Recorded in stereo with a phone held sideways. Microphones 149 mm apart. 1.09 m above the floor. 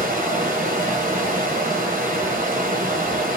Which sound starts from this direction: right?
Running water, at 0.0 s.